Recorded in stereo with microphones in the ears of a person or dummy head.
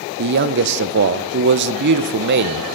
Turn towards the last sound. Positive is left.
turn(degrees=-60)  # may be behind; listen again after turning